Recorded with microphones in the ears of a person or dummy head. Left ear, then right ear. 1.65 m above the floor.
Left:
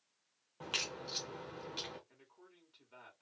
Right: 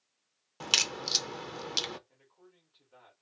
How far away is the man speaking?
About 2 m.